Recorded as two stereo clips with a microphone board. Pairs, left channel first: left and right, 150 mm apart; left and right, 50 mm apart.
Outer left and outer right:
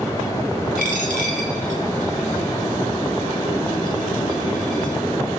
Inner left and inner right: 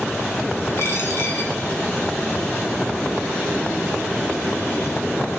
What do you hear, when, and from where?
0.8 s a dropped coin: 60° left (ahead or behind), 1.4 m